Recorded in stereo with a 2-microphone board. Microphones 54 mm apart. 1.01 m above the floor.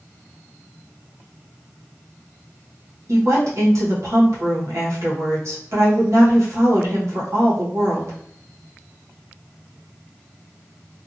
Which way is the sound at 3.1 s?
60° right (ahead or behind).